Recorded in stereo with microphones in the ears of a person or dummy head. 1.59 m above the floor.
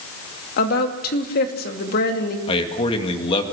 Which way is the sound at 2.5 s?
35° left (ahead or behind).